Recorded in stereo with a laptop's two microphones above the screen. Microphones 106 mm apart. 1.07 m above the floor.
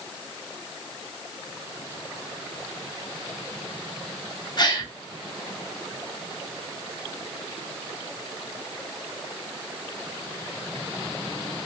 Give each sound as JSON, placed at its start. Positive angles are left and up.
{"t": 4.6, "sound": "a gasp", "side_deg": 40, "distance_m": 0.7}